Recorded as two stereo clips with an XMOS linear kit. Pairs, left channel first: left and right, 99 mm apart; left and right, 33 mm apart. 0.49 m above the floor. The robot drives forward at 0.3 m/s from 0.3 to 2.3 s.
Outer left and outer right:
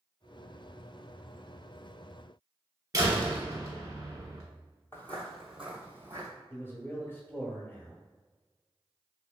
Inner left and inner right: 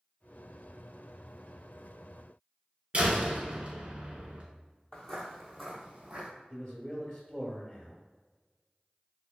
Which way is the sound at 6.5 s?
25° left (ahead or behind).